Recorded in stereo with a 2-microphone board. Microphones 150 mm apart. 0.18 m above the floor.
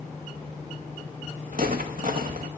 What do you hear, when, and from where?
1.5 s footsteps: 65° right (ahead or behind), 0.9 m